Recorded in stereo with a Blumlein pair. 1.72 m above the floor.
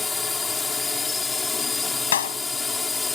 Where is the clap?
65° left.